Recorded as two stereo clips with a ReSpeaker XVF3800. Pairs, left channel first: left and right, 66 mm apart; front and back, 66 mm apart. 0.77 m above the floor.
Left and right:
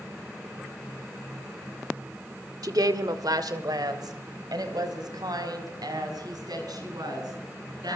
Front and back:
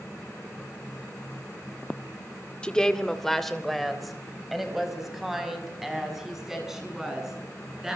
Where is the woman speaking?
75° right, 1.6 m; by 8.0 s 95° right, 8 m.